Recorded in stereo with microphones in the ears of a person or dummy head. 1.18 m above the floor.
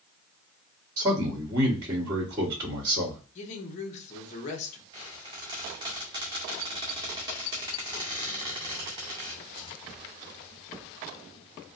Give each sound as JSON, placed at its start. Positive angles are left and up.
{"t": 1.0, "sound": "a man speaking", "side_deg": -15, "distance_m": 1.3}
{"t": 3.4, "sound": "a woman speaking", "side_deg": 40, "distance_m": 0.9}
{"t": 4.9, "sound": "a squeak", "side_deg": -20, "distance_m": 0.5}